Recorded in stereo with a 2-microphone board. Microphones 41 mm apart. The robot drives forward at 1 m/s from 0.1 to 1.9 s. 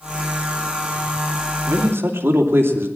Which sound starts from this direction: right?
A man speaking, at 1.7 s.